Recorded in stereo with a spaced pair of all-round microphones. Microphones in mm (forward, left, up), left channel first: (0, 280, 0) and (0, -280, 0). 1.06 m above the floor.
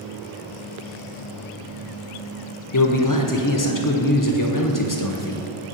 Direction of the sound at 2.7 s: 35° left (ahead or behind).